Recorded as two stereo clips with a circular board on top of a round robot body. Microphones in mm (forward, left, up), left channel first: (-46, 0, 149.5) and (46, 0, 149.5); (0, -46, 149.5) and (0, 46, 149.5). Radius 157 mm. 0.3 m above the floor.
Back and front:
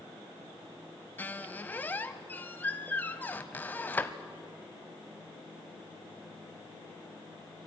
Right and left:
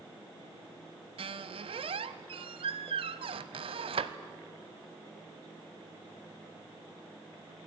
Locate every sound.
1.2 s a squeak: 110° left, 0.6 m